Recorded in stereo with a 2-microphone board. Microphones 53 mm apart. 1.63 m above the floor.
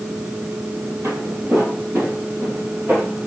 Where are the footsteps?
55° right (ahead or behind), 3 m; by 3.3 s 40° right (ahead or behind), 2.5 m.